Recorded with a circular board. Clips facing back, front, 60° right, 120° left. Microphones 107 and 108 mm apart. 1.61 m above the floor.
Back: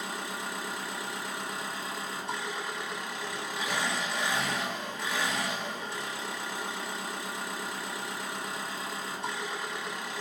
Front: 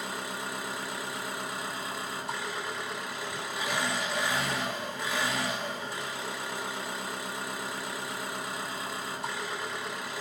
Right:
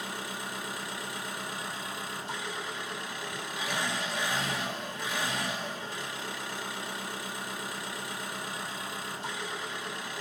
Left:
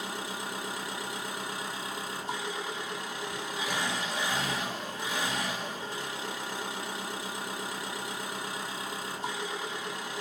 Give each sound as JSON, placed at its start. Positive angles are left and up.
{"t": 0.0, "sound": "an engine running", "azimuth_deg": 80, "distance_m": 1.7}